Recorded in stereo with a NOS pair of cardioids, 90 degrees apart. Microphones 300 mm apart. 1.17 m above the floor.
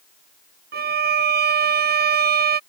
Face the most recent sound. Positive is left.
turn(degrees=-35)